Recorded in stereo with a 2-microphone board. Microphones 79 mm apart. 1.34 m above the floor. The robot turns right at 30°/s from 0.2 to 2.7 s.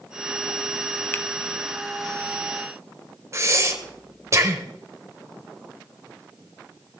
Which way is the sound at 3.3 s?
35° right (ahead or behind).